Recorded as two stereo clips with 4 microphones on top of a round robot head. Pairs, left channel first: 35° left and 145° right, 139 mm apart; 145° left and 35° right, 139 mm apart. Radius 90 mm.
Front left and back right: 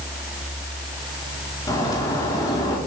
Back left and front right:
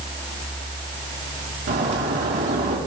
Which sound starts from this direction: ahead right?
A bird, at 1.7 s.